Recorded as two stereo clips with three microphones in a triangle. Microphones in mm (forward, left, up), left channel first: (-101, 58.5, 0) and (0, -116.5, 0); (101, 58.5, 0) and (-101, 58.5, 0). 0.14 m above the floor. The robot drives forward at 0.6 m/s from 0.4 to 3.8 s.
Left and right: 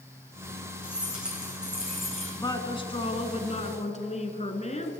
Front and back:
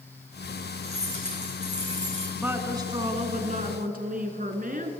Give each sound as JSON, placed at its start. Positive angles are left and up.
{"t": 0.8, "sound": "keys jangling", "azimuth_deg": -145, "distance_m": 5.5}
{"t": 2.4, "sound": "a woman speaking", "azimuth_deg": 105, "distance_m": 1.0}